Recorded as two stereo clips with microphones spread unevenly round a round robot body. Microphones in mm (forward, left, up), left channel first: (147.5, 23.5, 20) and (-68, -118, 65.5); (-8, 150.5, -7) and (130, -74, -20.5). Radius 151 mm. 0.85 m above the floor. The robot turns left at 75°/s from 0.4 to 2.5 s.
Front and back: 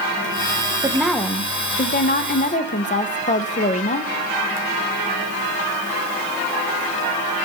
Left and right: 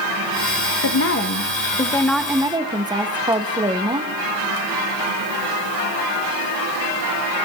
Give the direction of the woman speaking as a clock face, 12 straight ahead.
8 o'clock.